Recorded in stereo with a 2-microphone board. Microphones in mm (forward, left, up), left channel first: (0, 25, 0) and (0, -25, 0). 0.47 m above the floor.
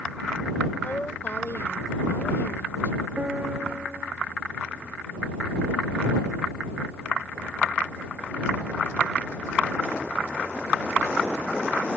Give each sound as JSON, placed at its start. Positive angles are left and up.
{"t": 0.8, "sound": "a woman speaking", "side_deg": 45}
{"t": 3.2, "sound": "a piano", "side_deg": -30}